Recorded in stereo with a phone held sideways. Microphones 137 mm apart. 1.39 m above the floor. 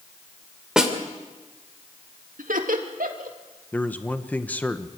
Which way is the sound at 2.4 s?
80° right.